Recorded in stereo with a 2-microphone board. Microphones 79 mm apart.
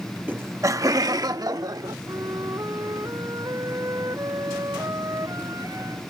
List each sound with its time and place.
0.3 s laughter: 20° right (ahead or behind); by 2.0 s 55° right (ahead or behind)
2.1 s a flute: 45° right (ahead or behind)